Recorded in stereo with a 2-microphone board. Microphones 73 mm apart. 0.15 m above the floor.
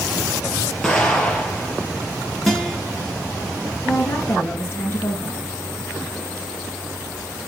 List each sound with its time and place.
0.8 s an explosion: 10° left (ahead or behind), 3.5 m
2.5 s a guitar: 5° left (ahead or behind), 1.8 m
3.9 s a woman speaking: 30° left (ahead or behind), 2.5 m